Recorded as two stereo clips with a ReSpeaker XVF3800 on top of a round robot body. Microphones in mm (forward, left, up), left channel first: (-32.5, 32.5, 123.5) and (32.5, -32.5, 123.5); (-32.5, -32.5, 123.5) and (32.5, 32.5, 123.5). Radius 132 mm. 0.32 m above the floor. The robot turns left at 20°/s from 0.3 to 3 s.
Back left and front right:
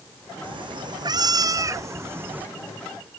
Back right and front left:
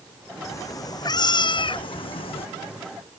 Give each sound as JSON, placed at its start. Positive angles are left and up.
{"t": 0.4, "sound": "a cat meowing", "azimuth_deg": -75}